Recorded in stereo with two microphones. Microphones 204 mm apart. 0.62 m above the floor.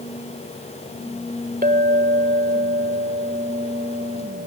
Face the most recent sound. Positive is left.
turn(degrees=-45)  # may be behind; listen again after turning